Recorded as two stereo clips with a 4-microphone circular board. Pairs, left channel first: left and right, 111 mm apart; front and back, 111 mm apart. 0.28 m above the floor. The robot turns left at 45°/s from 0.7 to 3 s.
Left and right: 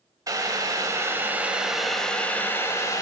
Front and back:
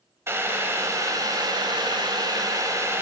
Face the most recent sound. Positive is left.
turn(degrees=130)